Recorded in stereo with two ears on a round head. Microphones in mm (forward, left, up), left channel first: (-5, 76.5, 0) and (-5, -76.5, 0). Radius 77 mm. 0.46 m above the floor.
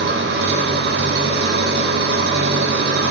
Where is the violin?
No violin in this recording.